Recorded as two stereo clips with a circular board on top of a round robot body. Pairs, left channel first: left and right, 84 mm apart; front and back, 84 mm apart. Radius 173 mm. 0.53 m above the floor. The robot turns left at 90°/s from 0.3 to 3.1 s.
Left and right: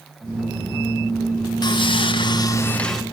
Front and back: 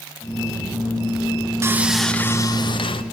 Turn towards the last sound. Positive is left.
turn(degrees=-10)